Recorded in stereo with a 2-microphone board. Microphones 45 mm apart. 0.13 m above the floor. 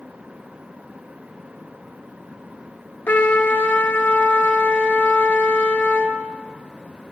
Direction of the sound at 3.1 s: 40° left (ahead or behind).